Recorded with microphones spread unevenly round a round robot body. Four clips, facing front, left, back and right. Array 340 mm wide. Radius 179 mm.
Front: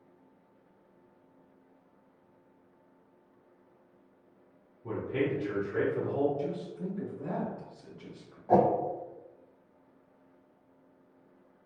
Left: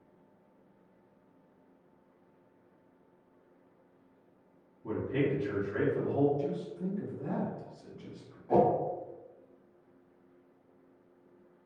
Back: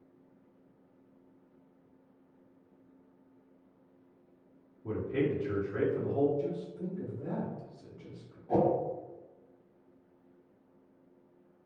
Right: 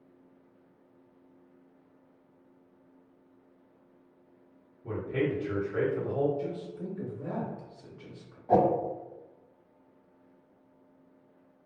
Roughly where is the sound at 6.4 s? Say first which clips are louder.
Left 1 dB, even; behind left.